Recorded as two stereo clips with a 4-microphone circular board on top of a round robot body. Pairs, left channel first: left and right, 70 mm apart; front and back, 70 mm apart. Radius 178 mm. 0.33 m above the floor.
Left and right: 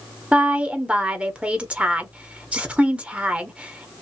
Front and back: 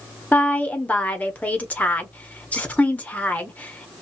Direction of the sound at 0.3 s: 40° right.